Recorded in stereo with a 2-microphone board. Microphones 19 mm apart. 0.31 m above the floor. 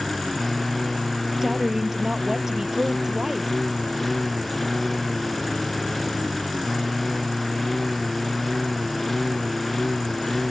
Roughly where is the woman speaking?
Right.